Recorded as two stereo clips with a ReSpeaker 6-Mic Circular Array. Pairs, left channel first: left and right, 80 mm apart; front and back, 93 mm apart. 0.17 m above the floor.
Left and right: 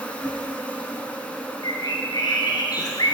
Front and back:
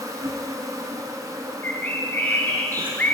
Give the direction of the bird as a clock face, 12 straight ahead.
10 o'clock.